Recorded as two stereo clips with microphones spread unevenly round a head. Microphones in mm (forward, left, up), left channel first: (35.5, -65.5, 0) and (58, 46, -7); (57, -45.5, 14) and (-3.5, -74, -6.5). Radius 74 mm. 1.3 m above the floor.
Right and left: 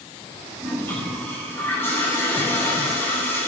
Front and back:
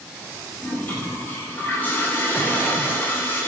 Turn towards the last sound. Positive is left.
turn(degrees=-35)